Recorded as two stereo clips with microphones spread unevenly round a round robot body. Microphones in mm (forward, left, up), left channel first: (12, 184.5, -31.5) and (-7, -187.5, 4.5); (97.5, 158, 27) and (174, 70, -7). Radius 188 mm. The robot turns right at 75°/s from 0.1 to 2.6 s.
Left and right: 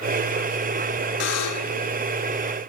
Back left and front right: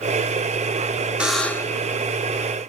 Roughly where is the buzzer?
Ahead left.